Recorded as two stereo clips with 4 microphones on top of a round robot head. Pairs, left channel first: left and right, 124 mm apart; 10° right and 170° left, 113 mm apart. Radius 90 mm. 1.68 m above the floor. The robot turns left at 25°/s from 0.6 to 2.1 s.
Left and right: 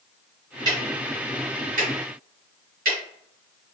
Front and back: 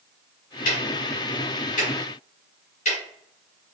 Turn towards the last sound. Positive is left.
turn(degrees=-60)